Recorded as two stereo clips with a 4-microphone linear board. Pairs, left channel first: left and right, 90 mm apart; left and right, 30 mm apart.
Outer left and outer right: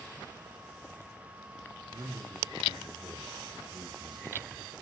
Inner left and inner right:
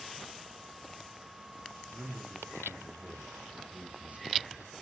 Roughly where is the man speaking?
Right.